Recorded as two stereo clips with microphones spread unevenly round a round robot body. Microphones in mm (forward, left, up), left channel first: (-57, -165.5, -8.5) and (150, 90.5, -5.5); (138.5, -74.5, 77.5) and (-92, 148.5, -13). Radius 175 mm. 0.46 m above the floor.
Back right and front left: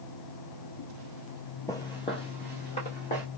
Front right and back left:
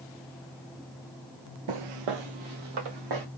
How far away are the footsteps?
About 0.5 m.